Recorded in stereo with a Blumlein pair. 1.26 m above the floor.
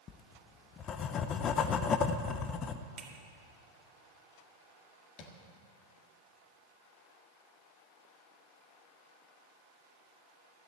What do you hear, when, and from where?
0.1 s writing: 30° left, 0.8 m
3.0 s a finger snap: 20° right, 2.5 m
5.2 s tapping: 35° left, 1.8 m